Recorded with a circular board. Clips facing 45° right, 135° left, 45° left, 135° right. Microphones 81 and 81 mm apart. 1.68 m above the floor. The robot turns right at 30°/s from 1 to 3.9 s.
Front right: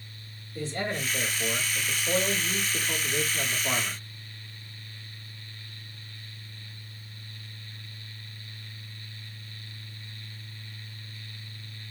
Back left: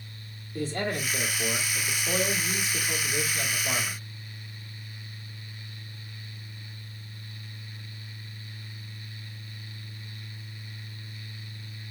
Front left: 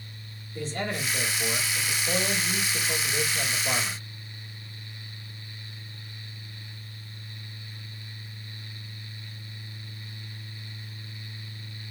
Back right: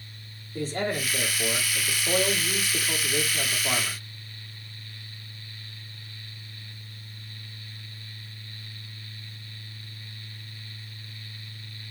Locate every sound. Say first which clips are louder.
0.6 s a man speaking: back left 2 dB, back right 3 dB; 175° left, 1.7 m; by 4.0 s 95° right, 1.7 m